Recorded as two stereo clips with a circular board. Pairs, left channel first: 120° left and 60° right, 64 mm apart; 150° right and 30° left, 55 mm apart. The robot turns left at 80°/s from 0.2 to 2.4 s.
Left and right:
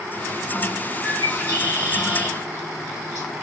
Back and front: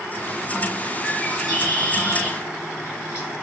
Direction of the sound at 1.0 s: 35° right.